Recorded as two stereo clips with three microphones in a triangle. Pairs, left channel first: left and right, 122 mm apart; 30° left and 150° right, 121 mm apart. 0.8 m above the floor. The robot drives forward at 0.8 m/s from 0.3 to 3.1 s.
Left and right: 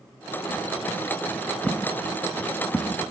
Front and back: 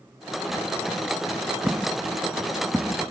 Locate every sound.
1.7 s footsteps: 165° left, 0.7 m; by 3.1 s 175° right, 0.7 m